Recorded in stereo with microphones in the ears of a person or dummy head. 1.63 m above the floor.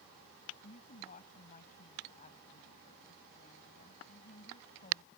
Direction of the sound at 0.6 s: 45° left (ahead or behind).